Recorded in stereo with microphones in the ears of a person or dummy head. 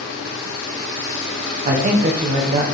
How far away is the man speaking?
About 1.4 m.